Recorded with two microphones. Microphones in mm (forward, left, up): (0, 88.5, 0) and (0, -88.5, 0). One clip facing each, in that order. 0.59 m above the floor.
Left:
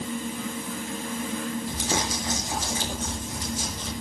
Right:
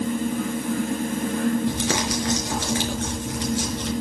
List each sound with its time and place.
1.7 s crumpling: 80° right, 5.5 m